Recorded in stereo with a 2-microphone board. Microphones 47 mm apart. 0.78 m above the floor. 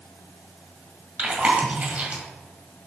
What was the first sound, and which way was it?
Chewing, 30° right (ahead or behind).